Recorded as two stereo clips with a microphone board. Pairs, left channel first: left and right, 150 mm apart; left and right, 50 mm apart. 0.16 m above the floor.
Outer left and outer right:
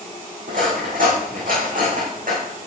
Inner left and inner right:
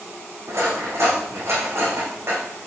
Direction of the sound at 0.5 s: 65° right (ahead or behind).